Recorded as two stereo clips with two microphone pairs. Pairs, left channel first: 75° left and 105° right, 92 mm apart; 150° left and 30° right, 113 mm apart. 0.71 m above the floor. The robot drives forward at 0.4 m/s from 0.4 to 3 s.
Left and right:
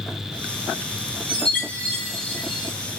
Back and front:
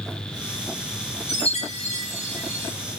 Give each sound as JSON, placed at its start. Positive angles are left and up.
{"t": 1.3, "sound": "a chime", "azimuth_deg": 145, "distance_m": 2.0}